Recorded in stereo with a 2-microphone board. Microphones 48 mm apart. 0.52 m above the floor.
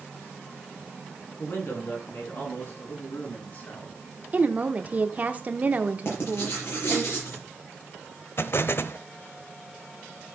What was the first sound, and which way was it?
A man speaking, 65° left (ahead or behind).